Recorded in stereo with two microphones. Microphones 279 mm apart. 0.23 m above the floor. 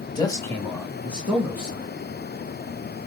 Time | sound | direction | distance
0.1 | a man speaking | 15° left (ahead or behind) | 1.0 m